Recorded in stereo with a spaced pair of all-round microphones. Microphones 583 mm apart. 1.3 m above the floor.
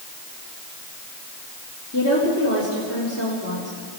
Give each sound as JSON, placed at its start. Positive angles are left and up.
{"t": 1.9, "sound": "a woman speaking", "side_deg": 25, "distance_m": 3.5}